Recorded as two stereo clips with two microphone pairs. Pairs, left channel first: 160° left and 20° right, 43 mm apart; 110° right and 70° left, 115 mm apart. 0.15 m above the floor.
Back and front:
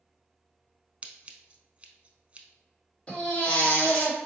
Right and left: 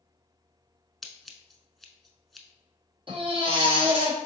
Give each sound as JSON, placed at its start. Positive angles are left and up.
{"t": 1.0, "sound": "scissors", "azimuth_deg": -25, "distance_m": 0.5}
{"t": 3.1, "sound": "a baby crying", "azimuth_deg": 100, "distance_m": 1.4}